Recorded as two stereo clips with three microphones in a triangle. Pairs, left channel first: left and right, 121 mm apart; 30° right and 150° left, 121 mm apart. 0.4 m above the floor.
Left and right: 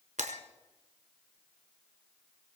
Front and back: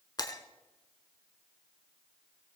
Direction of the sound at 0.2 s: 90° right.